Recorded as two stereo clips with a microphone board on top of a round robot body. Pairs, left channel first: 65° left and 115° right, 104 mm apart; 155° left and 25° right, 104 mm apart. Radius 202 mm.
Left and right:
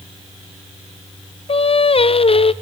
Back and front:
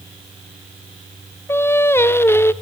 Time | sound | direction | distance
1.5 | singing | 90° left | 0.6 m